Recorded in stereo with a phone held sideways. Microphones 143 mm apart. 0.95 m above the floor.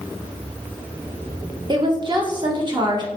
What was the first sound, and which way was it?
A woman speaking, 30° right (ahead or behind).